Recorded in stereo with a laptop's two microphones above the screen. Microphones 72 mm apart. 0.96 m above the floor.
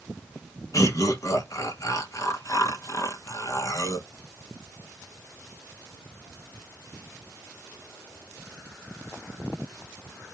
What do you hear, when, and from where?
0.7 s laughter: 50° left (ahead or behind), 1.0 m